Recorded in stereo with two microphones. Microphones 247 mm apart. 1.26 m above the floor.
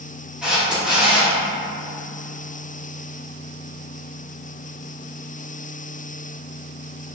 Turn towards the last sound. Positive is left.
turn(degrees=-5)  # may be behind; listen again after turning